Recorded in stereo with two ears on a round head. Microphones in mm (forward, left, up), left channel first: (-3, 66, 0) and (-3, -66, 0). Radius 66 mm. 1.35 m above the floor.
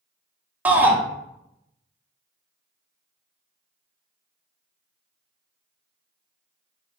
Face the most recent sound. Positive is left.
turn(degrees=-10)  # may be behind; listen again after turning